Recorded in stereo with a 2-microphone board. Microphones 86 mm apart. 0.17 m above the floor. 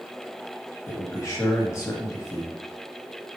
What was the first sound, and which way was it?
A man speaking, 35° left (ahead or behind).